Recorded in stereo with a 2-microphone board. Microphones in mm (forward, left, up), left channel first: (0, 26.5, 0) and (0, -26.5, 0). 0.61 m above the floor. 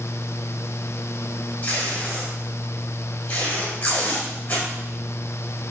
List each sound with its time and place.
1.6 s tape being pulled: 30° left (ahead or behind), 3.5 m